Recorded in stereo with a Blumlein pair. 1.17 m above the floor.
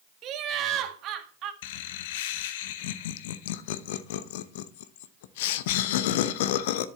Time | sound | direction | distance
0.2 | laughter | 35° right | 1.7 m
1.6 | laughter | 50° left | 0.9 m